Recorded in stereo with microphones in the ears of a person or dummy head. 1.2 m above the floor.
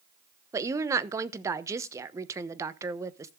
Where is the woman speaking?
20° right (ahead or behind), 0.9 m.